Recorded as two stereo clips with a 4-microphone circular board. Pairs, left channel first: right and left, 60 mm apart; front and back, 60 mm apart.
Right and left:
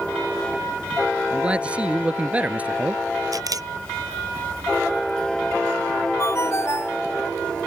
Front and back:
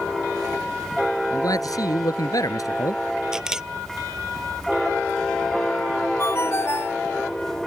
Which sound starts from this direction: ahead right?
A ringtone, at 6.2 s.